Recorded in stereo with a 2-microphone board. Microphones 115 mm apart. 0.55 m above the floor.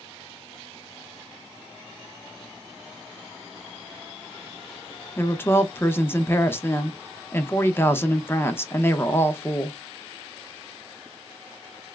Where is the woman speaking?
20° left (ahead or behind), 0.6 m.